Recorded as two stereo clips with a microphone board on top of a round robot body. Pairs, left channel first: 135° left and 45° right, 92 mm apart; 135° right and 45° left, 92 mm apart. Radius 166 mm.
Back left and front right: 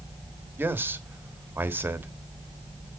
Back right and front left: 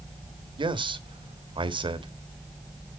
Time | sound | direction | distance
0.6 | a man speaking | 20° left | 1.4 m